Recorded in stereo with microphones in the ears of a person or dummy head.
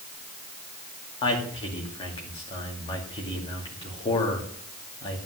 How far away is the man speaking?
About 2.5 m.